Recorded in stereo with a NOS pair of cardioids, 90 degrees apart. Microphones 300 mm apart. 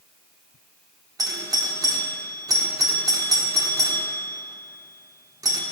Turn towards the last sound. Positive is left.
turn(degrees=-10)